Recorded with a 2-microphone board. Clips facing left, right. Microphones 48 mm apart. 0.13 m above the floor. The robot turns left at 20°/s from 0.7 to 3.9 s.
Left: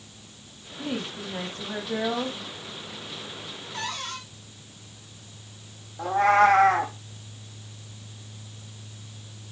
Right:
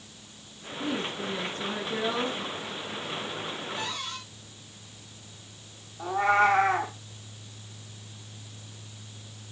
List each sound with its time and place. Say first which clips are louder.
0.8 s a woman speaking: right 1 dB; 80° left, 6 m; by 2.4 s 50° left, 6 m
3.7 s a cupboard door: left 1 dB; 70° left (ahead or behind), 3.5 m; by 4.2 s 65° left (ahead or behind), 3.5 m
6.0 s a cat meowing: left 4 dB; 80° left, 3 m